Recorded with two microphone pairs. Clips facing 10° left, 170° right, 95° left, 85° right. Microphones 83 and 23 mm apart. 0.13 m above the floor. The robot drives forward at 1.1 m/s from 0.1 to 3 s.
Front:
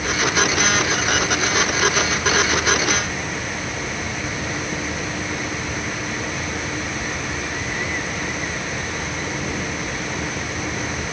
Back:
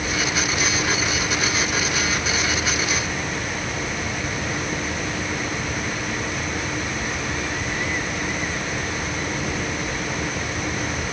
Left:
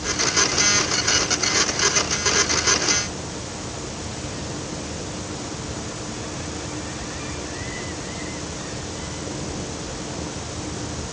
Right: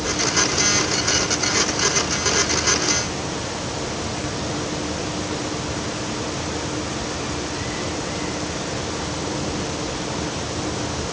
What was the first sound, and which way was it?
Only background noise.